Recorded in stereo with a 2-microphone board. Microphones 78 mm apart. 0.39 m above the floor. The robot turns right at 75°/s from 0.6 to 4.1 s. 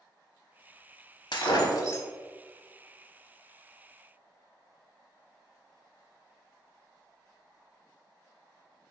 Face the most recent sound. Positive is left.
turn(degrees=-50)